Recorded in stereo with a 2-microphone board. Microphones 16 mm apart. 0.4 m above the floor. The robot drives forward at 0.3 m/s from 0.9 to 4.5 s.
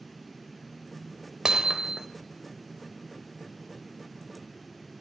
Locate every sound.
1.4 s hammering: 55° right (ahead or behind), 0.8 m; by 2.1 s 50° right (ahead or behind), 0.8 m